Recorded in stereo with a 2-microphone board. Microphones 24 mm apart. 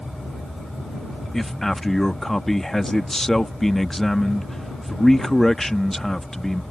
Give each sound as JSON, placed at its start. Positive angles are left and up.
{"t": 1.3, "sound": "a man speaking", "side_deg": 10}